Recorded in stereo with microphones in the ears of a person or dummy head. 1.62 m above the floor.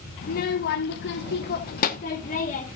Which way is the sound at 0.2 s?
40° left (ahead or behind).